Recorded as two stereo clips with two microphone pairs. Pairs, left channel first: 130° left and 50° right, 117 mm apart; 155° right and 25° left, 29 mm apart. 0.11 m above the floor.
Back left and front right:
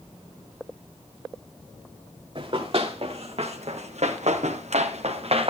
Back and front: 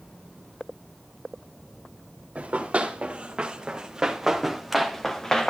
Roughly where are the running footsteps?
Ahead.